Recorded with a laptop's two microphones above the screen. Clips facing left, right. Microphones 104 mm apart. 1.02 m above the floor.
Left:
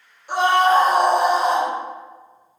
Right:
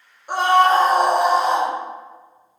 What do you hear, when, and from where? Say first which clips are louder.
0.3 s a scream: right 1 dB; 50° right (ahead or behind), 1.1 m; by 1.7 s 5° left (ahead or behind), 1.0 m